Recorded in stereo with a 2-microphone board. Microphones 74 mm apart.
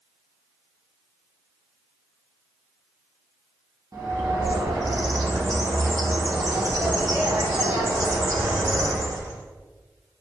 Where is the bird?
55° right (ahead or behind), 1.1 m.